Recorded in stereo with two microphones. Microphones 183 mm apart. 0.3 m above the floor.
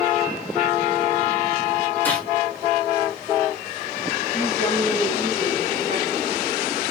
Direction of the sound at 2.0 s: 10° left (ahead or behind).